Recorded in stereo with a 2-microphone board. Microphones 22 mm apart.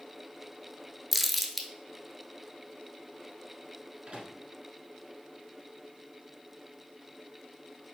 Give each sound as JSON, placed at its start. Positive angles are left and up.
{"t": 1.1, "sound": "crumpling", "side_deg": 0, "distance_m": 0.8}
{"t": 4.1, "sound": "a microwave", "side_deg": -45, "distance_m": 1.3}